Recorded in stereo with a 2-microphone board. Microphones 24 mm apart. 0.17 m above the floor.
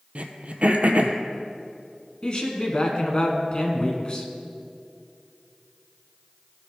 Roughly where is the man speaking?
Left.